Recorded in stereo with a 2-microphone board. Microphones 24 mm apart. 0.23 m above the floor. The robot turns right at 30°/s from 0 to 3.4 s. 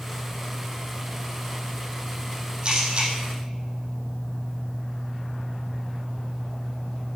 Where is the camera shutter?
35° right (ahead or behind), 5 m; by 3.1 s 45° right (ahead or behind), 5 m.